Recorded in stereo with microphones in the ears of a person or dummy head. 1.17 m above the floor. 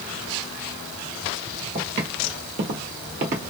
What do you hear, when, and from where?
1.8 s footsteps: 40° right (ahead or behind), 1.7 m; by 3.4 s 35° right (ahead or behind), 1.4 m